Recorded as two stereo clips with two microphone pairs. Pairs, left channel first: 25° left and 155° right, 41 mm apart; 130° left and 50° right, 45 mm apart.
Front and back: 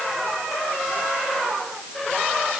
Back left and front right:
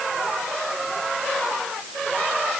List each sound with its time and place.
Only background noise.